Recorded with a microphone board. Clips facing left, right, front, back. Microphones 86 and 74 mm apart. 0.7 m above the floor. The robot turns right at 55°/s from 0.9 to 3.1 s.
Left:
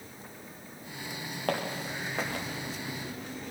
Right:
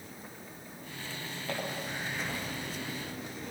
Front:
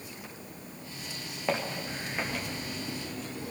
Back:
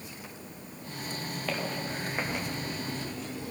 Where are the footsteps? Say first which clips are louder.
Left 5 dB, front 3 dB; 65° left, 5.5 m; by 2.5 s 120° left, 5.5 m.